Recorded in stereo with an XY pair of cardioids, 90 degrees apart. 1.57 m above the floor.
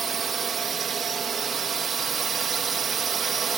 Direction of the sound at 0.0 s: 55° right.